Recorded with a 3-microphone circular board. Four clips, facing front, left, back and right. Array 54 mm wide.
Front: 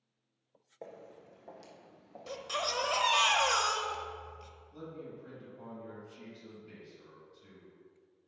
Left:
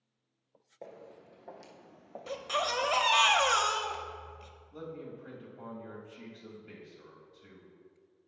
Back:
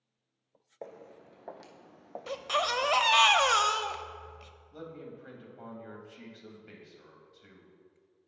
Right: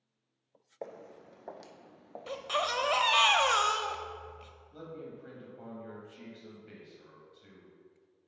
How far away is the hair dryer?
No hair dryer in this recording.